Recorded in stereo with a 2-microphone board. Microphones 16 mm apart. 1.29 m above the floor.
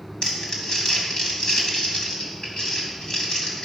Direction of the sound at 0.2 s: 45° left (ahead or behind).